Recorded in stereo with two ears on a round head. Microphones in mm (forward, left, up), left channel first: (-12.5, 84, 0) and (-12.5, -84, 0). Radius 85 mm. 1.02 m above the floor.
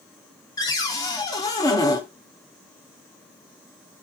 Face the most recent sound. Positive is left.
turn(degrees=20)  # may be behind; listen again after turning